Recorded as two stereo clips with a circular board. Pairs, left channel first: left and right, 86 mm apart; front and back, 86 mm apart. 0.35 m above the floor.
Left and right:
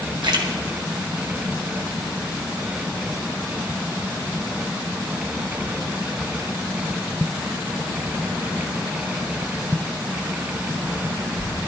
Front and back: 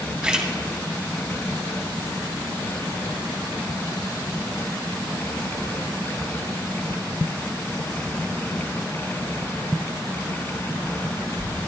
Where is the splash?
105° right, 2 m.